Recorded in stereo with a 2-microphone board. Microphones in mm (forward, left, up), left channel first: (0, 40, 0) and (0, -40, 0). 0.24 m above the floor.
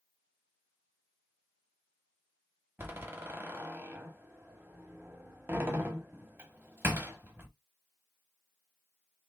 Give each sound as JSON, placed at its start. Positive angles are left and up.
{"t": 2.8, "sound": "a door slam", "side_deg": -30, "distance_m": 1.0}